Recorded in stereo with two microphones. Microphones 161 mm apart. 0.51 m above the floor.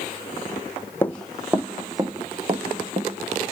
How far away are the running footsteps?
About 1.3 m.